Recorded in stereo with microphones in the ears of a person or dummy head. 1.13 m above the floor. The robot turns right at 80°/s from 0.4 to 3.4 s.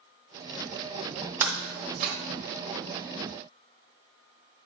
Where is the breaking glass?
10° right (ahead or behind), 0.8 m; by 2.1 s 25° right (ahead or behind), 0.8 m.